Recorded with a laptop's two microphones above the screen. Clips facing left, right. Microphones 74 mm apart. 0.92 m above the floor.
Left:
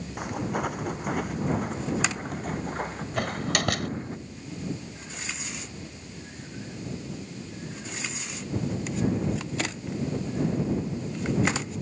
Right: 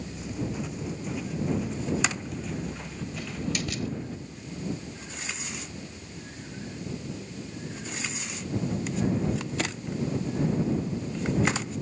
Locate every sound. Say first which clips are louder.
0.2 s footsteps: left 5 dB; 65° left (ahead or behind); by 4.2 s 40° left (ahead or behind)
3.2 s a door slam: left 5 dB; 65° left (ahead or behind)